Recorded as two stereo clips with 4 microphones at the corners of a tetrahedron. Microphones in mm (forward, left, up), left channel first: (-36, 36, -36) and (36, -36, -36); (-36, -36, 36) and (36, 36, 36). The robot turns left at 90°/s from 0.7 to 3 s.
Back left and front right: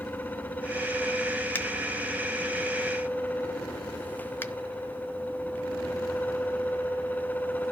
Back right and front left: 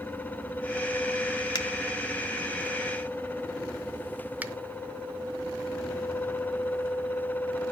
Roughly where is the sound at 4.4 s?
Left.